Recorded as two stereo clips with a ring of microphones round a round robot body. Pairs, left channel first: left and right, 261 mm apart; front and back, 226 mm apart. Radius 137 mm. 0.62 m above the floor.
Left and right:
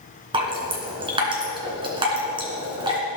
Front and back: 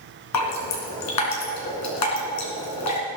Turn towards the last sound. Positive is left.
turn(degrees=-20)